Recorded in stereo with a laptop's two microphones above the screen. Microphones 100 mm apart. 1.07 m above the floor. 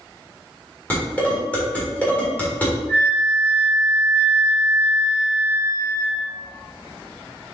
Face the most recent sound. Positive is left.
turn(degrees=20)  # may be behind; listen again after turning